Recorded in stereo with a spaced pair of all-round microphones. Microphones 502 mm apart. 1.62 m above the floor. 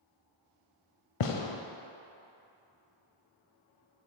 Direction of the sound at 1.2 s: 75° left (ahead or behind).